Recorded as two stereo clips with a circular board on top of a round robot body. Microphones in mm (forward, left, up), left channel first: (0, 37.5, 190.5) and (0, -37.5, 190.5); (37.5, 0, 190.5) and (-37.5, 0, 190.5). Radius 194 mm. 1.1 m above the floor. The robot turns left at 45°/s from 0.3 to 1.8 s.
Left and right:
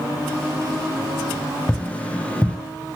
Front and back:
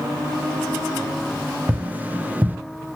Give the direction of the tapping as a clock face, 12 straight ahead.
7 o'clock.